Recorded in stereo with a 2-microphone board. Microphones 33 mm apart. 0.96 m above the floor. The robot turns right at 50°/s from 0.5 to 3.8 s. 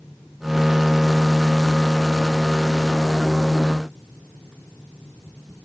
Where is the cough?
No cough in this recording.